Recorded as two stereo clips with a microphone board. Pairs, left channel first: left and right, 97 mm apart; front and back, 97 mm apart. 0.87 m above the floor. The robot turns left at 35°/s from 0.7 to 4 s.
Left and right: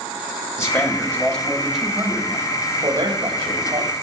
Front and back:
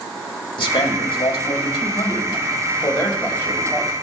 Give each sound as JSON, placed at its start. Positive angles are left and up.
{"t": 0.6, "sound": "a man speaking", "azimuth_deg": 30, "distance_m": 2.0}